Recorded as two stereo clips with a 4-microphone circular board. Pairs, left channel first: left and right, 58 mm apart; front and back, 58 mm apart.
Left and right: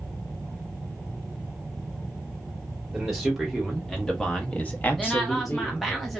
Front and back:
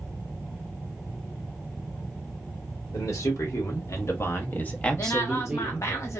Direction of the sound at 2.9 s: 5° right.